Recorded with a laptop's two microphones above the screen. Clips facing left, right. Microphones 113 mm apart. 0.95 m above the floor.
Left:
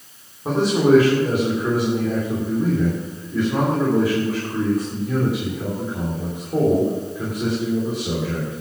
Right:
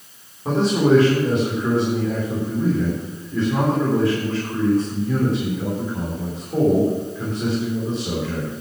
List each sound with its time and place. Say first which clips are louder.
0.5 s a man speaking: left 1 dB; 10° left (ahead or behind), 3 m